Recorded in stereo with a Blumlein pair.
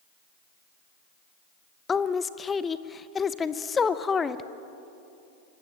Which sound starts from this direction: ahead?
A woman speaking, at 1.9 s.